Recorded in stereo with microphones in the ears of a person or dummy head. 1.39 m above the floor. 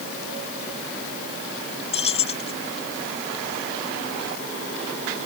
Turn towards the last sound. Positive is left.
turn(degrees=35)  # may be behind; listen again after turning